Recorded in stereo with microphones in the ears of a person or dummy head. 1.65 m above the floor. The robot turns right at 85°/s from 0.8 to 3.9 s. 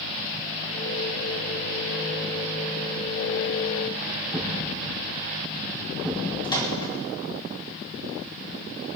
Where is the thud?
15° left (ahead or behind), 6 m.